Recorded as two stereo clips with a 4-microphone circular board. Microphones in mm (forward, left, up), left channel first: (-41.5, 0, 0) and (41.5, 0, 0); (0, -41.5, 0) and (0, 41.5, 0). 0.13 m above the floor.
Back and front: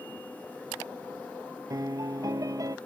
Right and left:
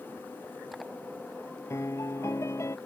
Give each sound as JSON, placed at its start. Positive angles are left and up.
{"t": 1.7, "sound": "a piano", "azimuth_deg": -40}